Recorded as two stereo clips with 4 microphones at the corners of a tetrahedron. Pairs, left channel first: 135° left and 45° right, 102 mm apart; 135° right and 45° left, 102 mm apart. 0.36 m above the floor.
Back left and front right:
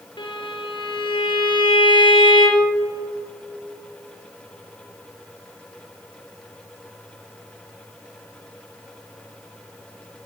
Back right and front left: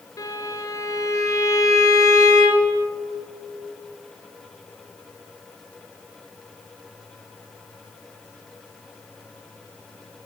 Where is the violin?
170° left, 1.7 m.